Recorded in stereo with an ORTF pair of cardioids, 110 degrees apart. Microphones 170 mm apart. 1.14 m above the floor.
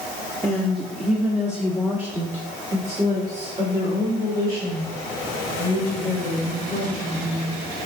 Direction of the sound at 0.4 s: 5° left.